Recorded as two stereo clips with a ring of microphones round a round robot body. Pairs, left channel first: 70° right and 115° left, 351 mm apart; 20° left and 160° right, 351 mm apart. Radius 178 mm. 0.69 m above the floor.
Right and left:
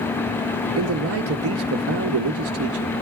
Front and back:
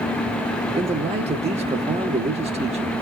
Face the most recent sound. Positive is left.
turn(degrees=140)